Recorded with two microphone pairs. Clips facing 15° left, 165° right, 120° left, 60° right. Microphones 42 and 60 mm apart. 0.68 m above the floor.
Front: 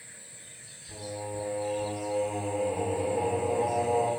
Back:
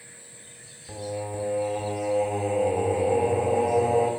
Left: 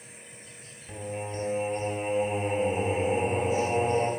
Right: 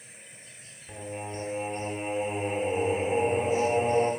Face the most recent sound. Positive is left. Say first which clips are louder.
# back 5 dB, left 2 dB
turn(degrees=-140)